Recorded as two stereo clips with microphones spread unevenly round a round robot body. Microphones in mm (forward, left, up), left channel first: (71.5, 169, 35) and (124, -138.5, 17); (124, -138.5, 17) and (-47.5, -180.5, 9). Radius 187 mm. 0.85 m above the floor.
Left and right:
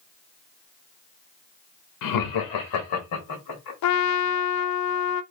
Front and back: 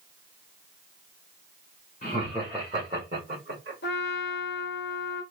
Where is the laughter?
80° left, 0.7 m; by 3.7 s 145° left, 1.6 m.